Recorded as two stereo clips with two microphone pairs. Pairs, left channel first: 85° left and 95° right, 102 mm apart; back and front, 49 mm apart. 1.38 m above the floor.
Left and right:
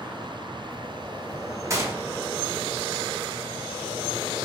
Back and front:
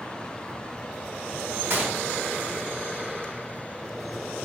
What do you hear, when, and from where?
1.7 s a gunshot: 40° right, 0.6 m